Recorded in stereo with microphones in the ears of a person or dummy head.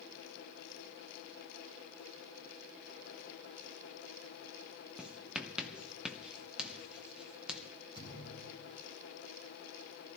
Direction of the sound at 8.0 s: 30° left (ahead or behind).